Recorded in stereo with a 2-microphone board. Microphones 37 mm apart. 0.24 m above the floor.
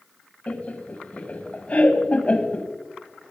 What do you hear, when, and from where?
0.5 s laughter: 35° left (ahead or behind), 1.4 m